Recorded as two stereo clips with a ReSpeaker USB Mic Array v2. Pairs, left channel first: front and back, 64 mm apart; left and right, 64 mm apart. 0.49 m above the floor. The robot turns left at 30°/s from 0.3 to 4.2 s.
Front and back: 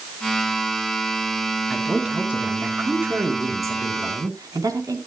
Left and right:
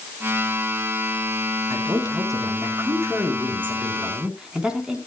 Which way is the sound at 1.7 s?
90° right.